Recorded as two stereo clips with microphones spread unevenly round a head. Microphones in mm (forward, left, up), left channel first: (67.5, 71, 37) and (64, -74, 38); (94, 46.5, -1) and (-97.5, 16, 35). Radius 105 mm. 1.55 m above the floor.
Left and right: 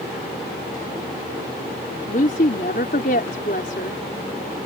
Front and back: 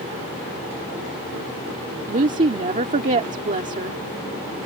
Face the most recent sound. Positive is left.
turn(degrees=140)